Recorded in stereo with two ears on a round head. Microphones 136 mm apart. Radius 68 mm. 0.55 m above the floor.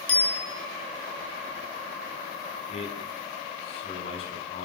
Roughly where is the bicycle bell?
Centre.